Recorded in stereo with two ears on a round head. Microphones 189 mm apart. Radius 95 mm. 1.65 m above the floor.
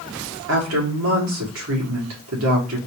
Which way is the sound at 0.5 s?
70° right (ahead or behind).